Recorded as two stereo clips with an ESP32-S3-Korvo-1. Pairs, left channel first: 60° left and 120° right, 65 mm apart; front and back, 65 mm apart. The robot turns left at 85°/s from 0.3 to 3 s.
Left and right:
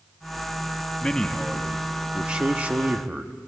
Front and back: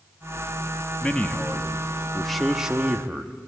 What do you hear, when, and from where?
1.0 s a man speaking: 25° left, 1.0 m; by 3.3 s 145° right, 1.0 m